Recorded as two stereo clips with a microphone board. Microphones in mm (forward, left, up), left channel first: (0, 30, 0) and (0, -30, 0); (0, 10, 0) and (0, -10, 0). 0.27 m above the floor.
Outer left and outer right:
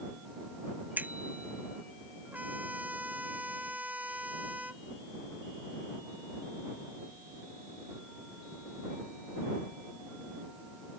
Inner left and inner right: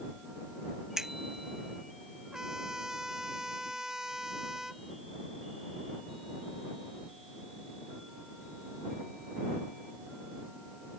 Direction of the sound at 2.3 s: 30° right (ahead or behind).